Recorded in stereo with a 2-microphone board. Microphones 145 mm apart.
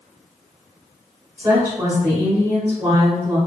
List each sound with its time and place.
1.4 s a woman speaking: 20° right (ahead or behind), 1.7 m